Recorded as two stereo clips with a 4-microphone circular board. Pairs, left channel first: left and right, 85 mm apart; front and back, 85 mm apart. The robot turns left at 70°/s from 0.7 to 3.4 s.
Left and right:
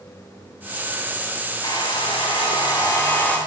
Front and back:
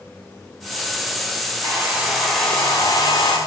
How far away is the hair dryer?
About 4 m.